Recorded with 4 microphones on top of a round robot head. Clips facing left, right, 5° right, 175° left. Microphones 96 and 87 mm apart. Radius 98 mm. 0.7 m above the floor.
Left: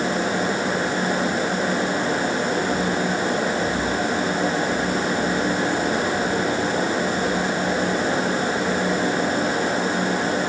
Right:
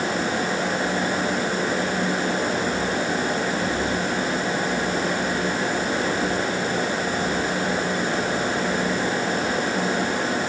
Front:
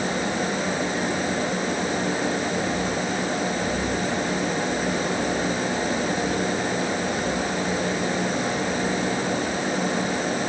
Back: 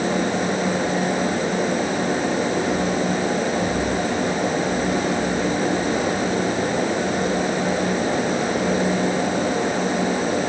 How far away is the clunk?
No clunk in this recording.